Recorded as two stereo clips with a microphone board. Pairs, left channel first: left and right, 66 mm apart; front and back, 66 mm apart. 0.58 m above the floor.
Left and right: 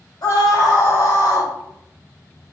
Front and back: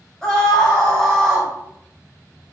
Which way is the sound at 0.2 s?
85° left.